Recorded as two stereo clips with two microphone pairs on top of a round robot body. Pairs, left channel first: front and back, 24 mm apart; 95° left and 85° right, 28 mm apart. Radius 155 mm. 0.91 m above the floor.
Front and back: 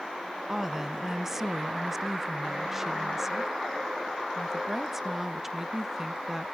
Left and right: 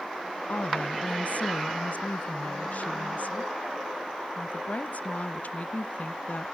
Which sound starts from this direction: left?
A woman speaking, at 0.5 s.